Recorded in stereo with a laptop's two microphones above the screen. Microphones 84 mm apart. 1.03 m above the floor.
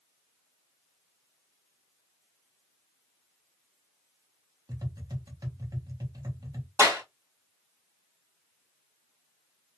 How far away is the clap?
About 0.9 m.